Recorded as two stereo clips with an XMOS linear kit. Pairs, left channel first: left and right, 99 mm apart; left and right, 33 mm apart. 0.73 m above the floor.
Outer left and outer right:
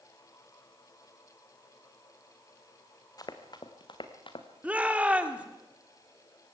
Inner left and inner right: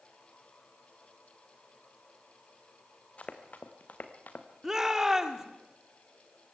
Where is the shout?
15° right (ahead or behind), 2.5 m.